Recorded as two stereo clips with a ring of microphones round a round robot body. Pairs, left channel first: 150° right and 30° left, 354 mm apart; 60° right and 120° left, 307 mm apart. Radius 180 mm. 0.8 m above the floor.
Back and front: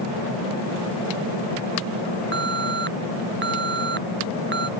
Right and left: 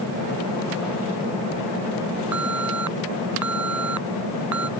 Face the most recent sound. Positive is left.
turn(degrees=90)